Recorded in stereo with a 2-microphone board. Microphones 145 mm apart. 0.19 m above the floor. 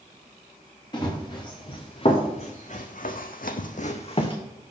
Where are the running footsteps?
30° left (ahead or behind), 2 m; by 4.4 s 35° left (ahead or behind), 1.0 m.